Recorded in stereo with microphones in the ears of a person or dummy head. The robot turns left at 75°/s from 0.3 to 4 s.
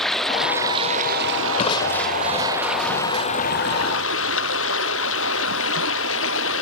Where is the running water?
5° left; by 6.6 s 90° left.